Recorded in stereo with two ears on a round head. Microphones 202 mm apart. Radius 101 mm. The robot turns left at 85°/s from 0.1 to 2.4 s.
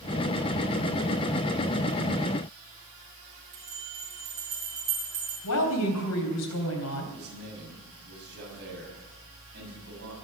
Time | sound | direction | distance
3.5 | a bell | 30° right (ahead or behind) | 8 m
5.4 | a woman speaking | 80° left | 3.5 m
7.1 | a man speaking | 50° right (ahead or behind) | 6 m